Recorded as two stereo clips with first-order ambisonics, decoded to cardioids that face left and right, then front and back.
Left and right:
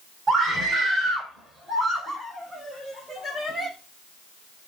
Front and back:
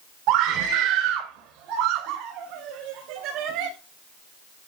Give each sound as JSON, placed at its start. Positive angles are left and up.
{"t": 0.3, "sound": "a scream", "azimuth_deg": -160, "distance_m": 3.0}